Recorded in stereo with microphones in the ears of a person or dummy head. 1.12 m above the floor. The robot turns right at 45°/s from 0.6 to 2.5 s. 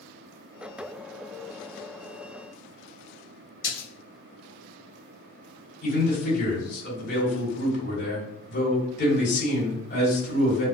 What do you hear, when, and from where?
3.6 s a splash: 55° left (ahead or behind), 1.3 m
5.8 s a man speaking: 50° left (ahead or behind), 1.8 m